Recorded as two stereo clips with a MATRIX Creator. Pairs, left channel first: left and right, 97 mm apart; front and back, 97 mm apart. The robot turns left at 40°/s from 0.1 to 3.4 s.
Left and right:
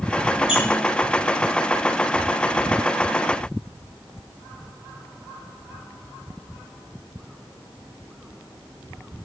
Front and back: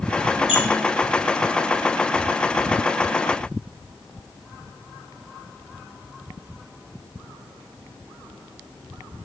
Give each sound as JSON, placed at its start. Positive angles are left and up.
{"t": 0.5, "sound": "a squeak", "azimuth_deg": -10, "distance_m": 3.0}